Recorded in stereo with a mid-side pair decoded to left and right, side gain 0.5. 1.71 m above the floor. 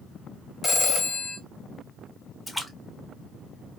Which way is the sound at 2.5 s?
10° left.